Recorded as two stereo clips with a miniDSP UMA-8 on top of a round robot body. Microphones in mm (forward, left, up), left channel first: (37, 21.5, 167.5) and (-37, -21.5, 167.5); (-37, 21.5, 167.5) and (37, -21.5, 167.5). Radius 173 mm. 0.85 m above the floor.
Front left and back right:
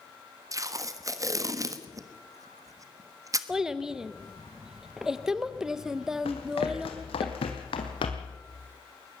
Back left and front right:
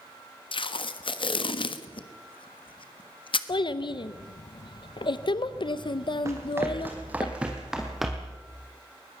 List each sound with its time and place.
0.5 s tape being pulled: 160° left, 1.3 m
3.5 s a child speaking: 125° left, 0.8 m
6.2 s running footsteps: 30° left, 1.9 m; by 8.4 s 65° left, 2 m